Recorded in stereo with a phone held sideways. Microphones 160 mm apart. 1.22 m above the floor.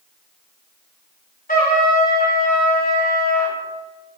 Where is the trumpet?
65° left (ahead or behind), 6.5 m.